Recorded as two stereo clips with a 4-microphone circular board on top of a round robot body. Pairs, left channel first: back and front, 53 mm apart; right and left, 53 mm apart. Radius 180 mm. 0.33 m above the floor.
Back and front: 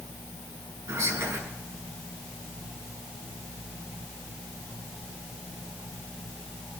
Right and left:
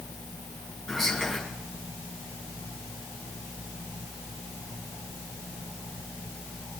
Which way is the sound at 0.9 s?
5° left.